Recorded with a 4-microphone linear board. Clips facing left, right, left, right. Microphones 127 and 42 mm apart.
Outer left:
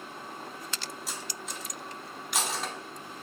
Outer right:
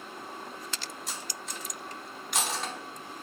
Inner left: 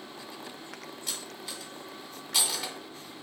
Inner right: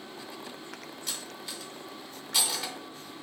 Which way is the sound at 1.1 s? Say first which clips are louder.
Outer left 1 dB, even; centre (ahead or behind).